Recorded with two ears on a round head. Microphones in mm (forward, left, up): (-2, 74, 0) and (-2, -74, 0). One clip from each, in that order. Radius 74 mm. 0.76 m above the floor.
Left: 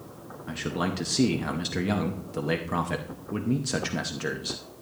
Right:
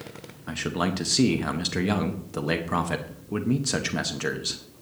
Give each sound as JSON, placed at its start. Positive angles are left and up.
{"t": 0.5, "sound": "a man speaking", "side_deg": -15, "distance_m": 0.7}